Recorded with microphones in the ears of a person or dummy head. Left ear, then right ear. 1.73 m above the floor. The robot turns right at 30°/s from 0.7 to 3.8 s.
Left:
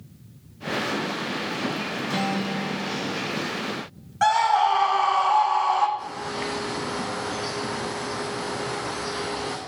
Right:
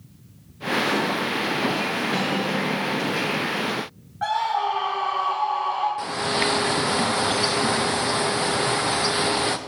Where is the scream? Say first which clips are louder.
Left 4 dB; 60° left (ahead or behind), 1.6 m.